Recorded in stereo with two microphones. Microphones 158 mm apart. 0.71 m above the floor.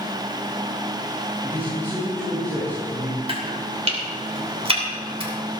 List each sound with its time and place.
1.4 s a man speaking: 20° right (ahead or behind), 7 m
3.3 s chopping: 35° right (ahead or behind), 2.5 m